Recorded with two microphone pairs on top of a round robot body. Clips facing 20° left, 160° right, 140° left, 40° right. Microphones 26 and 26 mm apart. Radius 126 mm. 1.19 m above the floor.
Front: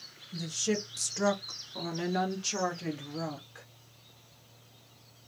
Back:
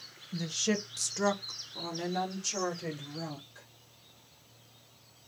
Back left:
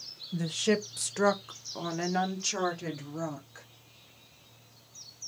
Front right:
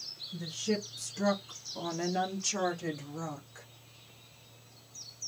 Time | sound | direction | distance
0.3 | a woman speaking | 140° left | 0.8 m